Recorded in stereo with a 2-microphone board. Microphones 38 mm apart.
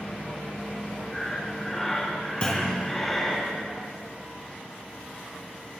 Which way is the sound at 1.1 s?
10° left (ahead or behind).